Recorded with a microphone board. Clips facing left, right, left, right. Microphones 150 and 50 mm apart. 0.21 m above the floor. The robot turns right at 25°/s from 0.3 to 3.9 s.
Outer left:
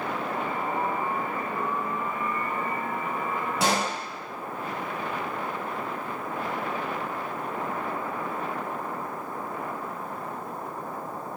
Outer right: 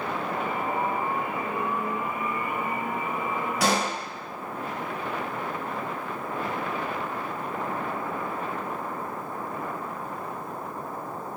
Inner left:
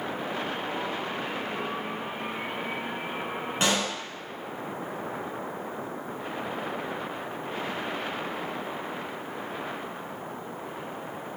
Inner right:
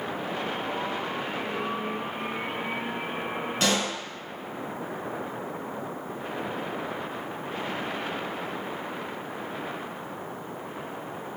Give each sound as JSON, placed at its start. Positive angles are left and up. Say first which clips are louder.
{"t": 3.6, "sound": "a pop", "louder": "outer right 1 dB, even", "side_deg": 25, "distance_m": 1.1}